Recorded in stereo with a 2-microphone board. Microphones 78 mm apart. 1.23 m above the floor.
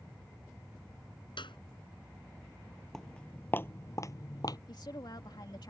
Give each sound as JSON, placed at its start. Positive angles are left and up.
{"t": 1.4, "sound": "a clap", "side_deg": 90}
{"t": 2.9, "sound": "footsteps", "side_deg": 5}
{"t": 4.7, "sound": "a woman speaking", "side_deg": 65}